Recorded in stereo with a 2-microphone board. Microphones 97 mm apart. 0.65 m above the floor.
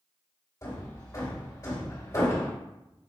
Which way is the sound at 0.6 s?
35° left (ahead or behind).